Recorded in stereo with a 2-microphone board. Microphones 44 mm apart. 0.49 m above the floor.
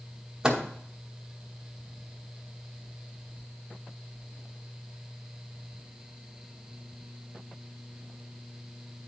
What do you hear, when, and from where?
0.4 s a microwave: 15° right (ahead or behind), 0.9 m